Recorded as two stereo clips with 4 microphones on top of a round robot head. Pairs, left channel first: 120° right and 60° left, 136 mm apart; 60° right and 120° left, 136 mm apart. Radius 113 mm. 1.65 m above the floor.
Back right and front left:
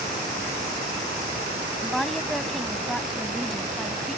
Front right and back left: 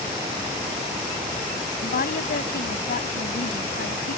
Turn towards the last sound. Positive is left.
turn(degrees=-30)